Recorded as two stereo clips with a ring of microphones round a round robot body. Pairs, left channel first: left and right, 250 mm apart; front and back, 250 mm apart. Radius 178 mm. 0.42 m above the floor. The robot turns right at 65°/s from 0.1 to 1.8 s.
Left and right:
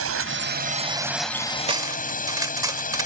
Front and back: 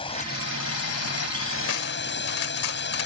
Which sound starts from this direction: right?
A drone, at 0.0 s.